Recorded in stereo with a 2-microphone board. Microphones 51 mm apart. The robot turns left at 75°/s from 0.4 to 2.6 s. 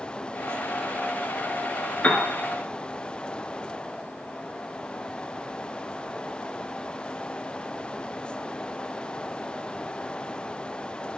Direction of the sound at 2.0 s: 30° left (ahead or behind).